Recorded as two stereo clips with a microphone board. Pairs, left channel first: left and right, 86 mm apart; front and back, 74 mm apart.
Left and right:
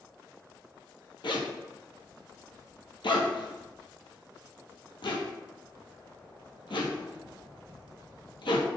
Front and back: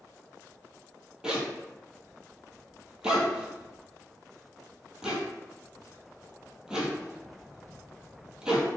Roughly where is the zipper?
Left.